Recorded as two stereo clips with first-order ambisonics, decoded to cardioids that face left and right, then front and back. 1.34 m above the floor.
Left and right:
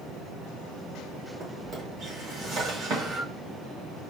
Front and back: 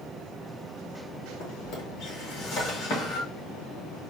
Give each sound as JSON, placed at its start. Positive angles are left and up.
{"t": 1.4, "sound": "a drawer", "azimuth_deg": -40, "distance_m": 1.6}